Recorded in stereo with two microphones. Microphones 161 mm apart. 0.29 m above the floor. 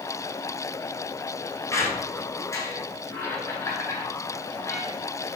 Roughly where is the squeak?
Centre.